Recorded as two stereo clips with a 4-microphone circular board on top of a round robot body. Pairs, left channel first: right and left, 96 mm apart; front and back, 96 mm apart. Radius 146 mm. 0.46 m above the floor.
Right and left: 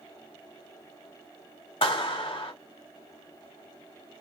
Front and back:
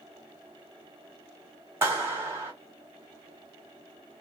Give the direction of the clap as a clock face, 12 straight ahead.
4 o'clock.